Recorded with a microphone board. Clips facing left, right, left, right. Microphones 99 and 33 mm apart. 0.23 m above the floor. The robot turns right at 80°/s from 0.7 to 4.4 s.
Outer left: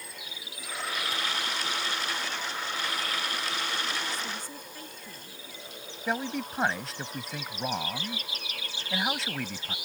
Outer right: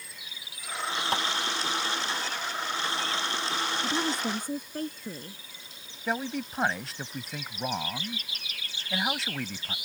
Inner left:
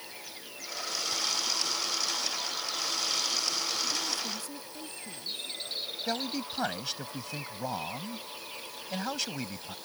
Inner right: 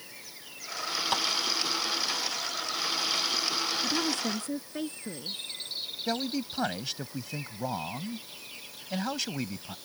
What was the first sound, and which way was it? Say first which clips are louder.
Tapping: outer right 7 dB, inner right 9 dB; 65° right (ahead or behind).